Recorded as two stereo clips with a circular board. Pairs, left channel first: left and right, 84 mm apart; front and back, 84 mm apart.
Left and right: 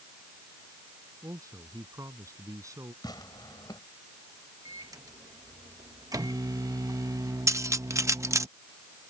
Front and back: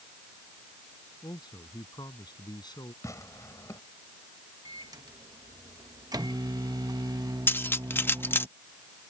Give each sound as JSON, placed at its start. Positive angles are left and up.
{"t": 1.2, "sound": "a man speaking", "azimuth_deg": -35}
{"t": 3.0, "sound": "tearing paper", "azimuth_deg": 50}
{"t": 4.7, "sound": "a microwave", "azimuth_deg": -140}
{"t": 7.5, "sound": "cutlery clinking", "azimuth_deg": -55}